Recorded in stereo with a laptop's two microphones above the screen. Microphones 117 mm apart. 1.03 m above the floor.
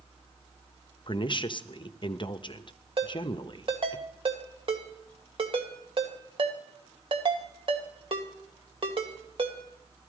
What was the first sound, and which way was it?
A woman speaking, 45° left (ahead or behind).